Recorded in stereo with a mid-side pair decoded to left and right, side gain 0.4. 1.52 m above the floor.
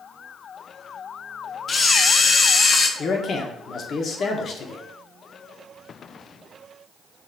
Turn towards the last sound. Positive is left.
turn(degrees=55)